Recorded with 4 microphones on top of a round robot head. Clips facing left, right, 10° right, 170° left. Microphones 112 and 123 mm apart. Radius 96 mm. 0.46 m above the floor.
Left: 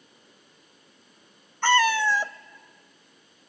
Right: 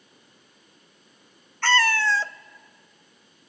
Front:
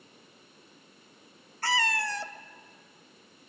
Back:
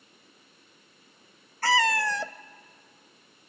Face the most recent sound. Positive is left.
turn(degrees=165)